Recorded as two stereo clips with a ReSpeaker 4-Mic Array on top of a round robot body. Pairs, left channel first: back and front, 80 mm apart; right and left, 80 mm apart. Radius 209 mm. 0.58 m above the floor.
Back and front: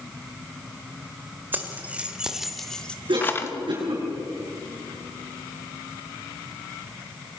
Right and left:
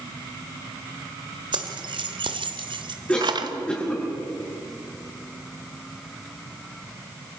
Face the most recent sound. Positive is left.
turn(degrees=-20)